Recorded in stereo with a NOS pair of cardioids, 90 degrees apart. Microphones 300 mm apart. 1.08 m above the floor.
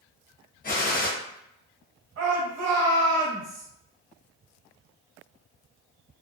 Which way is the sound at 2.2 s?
55° right.